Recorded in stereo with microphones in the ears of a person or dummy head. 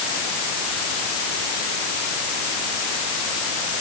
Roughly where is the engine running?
No engine running in this recording.